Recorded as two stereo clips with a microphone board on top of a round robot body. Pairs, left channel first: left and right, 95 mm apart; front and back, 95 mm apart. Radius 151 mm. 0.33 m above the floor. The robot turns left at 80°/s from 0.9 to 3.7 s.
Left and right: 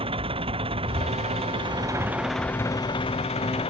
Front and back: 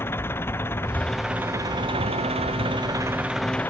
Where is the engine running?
65° right; by 3.7 s 70° left.